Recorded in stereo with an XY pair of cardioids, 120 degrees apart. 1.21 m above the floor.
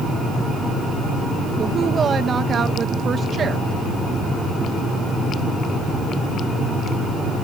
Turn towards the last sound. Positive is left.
turn(degrees=-40)